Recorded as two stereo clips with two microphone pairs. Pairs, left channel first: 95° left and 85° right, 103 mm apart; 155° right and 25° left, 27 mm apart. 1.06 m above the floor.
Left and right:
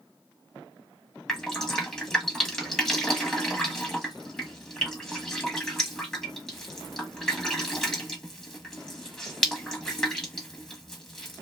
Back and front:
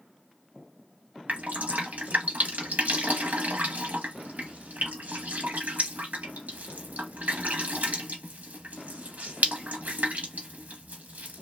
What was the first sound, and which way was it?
Dripping, 10° left.